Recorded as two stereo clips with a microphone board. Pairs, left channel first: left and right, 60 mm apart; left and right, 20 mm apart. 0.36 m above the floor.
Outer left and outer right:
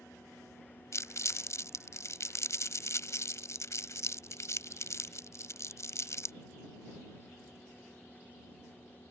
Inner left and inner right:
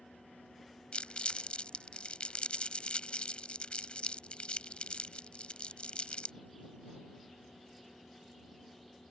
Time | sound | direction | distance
0.9 | crumpling | 60° left (ahead or behind) | ?